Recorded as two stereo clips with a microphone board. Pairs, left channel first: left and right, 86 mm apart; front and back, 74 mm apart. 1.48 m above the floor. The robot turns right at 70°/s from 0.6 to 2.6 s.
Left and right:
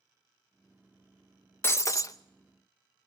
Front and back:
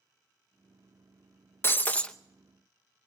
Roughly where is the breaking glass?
Ahead left.